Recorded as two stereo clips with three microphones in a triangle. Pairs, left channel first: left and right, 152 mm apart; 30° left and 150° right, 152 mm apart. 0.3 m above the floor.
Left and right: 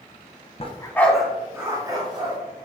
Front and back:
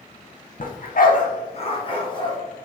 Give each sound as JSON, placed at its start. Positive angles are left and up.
{"t": 0.6, "sound": "a dog barking", "azimuth_deg": 50, "distance_m": 0.7}